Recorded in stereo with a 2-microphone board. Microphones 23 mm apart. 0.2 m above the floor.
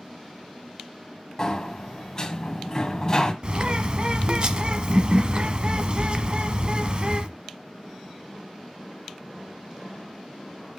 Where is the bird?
40° right (ahead or behind), 0.8 m.